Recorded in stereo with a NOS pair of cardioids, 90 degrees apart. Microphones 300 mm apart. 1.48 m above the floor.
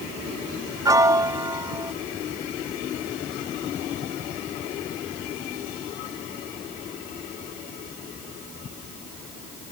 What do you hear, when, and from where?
0.8 s a piano: 10° right